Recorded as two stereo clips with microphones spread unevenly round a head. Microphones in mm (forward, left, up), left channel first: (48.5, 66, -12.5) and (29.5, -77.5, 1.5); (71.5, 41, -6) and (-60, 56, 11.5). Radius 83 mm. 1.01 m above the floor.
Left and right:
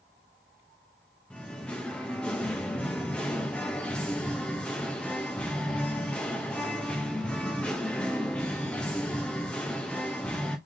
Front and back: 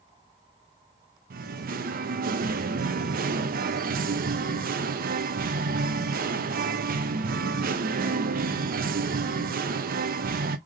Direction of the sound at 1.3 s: 165° left.